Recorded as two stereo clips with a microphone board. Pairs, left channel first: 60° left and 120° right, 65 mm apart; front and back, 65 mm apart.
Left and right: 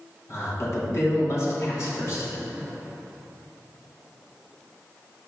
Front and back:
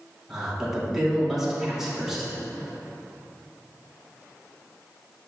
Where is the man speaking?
95° left, 3 m.